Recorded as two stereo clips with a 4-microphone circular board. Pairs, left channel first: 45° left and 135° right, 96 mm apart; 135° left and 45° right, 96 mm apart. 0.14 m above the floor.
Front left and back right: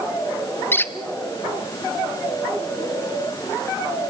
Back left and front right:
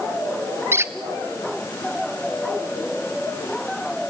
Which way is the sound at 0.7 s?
Straight ahead.